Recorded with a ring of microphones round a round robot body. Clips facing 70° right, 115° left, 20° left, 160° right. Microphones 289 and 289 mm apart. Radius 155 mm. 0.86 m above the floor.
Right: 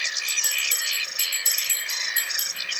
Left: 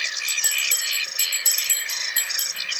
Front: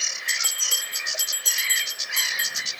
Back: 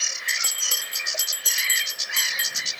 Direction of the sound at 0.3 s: 140° left.